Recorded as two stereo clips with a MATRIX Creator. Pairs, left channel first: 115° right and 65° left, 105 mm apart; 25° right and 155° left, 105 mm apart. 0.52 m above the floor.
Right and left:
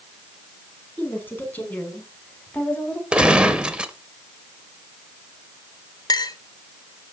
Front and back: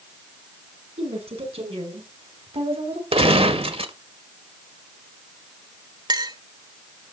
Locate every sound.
1.0 s a woman speaking: 175° left, 6 m; by 3.0 s 165° left, 4 m
3.1 s a gunshot: 145° left, 1.5 m
6.1 s a clink: 160° right, 1.0 m